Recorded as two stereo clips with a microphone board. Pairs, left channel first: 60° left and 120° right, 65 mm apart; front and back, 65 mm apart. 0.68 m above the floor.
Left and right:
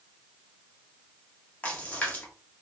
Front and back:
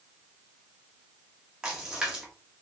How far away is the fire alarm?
I don't hear a fire alarm.